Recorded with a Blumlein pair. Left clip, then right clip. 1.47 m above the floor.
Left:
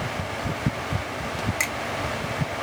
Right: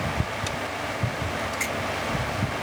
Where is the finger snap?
40° left, 2.5 m.